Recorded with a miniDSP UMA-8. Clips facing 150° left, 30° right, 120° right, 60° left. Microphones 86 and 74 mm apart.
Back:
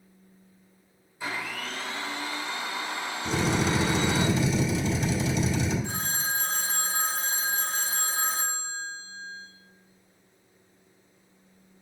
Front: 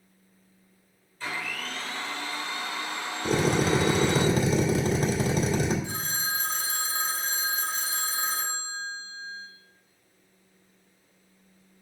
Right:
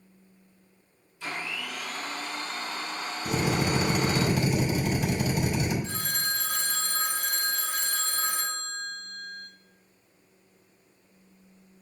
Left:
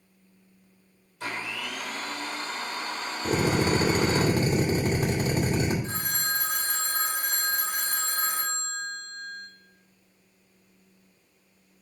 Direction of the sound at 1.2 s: 75° left.